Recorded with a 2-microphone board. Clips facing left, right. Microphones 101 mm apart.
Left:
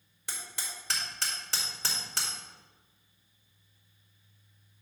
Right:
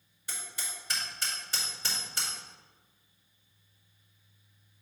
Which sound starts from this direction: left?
Hammering, at 0.3 s.